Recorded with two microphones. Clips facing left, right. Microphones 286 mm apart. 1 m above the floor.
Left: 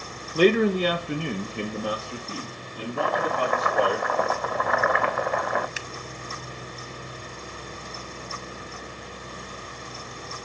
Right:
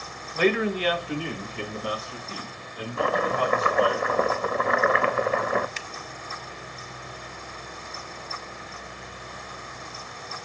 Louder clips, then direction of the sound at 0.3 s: Left 4 dB; 40° left (ahead or behind).